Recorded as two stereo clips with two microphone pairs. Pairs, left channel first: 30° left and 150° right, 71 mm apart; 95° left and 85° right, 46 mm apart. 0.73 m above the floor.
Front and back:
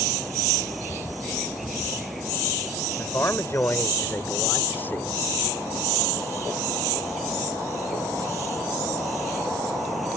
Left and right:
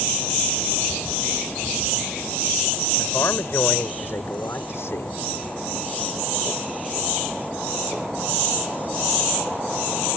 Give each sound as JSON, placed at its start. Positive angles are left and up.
{"t": 3.0, "sound": "a man speaking", "azimuth_deg": 80}